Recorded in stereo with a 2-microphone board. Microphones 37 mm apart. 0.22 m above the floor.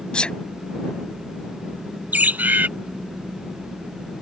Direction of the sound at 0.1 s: 30° left (ahead or behind).